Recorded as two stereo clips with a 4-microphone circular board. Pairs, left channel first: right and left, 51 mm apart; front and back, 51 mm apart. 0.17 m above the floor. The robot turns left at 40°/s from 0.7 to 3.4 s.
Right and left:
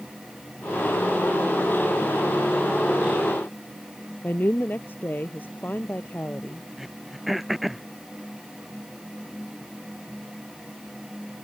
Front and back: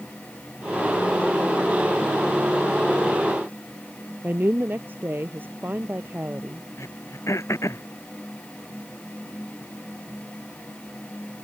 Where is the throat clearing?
5° left.